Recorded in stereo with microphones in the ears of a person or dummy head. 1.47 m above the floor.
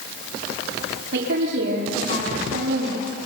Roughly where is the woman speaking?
Right.